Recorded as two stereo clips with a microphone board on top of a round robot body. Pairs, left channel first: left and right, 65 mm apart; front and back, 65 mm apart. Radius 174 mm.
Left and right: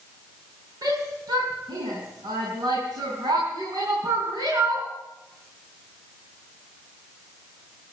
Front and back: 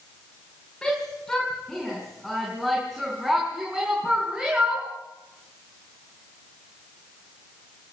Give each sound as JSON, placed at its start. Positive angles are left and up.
{"t": 0.8, "sound": "a shout", "azimuth_deg": -80, "distance_m": 5.0}